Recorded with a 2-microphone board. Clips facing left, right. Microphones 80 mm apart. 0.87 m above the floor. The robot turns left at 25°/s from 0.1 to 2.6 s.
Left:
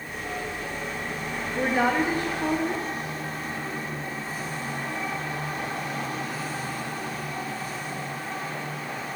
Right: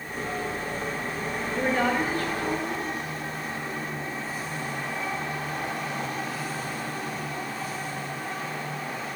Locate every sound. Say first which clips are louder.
1.6 s a woman speaking: left 2 dB; 5° left (ahead or behind), 0.9 m; by 2.9 s 30° left (ahead or behind), 0.9 m